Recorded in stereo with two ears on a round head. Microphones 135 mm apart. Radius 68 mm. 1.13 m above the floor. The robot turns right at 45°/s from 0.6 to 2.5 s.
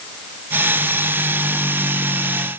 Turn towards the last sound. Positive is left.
No sound to turn to.